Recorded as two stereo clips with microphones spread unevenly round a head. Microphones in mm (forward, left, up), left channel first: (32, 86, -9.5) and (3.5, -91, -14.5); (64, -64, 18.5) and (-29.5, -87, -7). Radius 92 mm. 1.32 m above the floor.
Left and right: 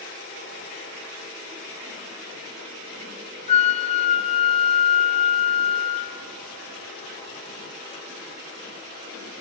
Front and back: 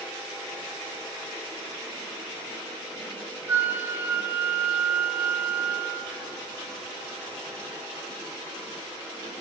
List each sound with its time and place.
3.5 s a flute: 110° left, 0.7 m